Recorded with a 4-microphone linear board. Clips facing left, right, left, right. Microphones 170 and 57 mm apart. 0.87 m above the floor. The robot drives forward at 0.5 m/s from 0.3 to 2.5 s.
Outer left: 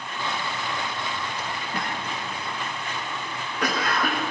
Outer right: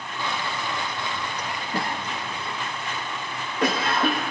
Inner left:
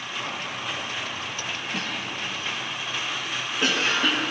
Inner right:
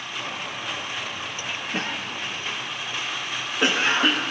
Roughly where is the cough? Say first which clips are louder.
Outer right 4 dB, inner right 1 dB; right.